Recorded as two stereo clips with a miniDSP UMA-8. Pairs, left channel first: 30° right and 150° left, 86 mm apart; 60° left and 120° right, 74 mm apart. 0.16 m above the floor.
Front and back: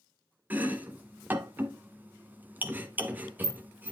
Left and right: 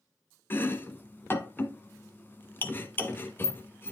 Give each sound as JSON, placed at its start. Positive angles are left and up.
{"t": 0.5, "sound": "chopping", "azimuth_deg": 95, "distance_m": 1.1}